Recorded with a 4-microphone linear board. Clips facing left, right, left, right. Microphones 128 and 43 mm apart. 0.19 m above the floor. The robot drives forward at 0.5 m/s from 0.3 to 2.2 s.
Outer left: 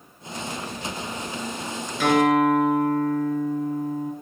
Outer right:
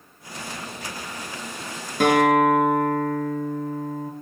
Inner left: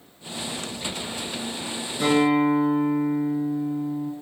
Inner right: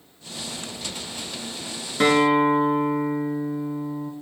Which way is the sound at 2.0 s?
50° right (ahead or behind).